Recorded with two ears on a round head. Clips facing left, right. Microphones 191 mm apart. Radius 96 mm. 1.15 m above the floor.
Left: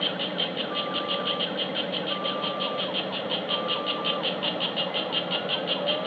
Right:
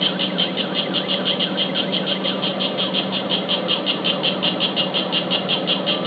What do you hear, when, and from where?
0.0 s an insect: 55° right (ahead or behind), 0.7 m